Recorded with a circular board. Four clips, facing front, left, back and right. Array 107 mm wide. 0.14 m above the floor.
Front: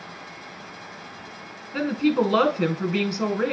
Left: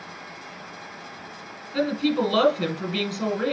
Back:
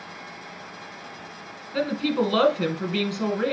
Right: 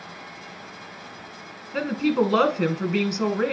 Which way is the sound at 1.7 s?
60° right.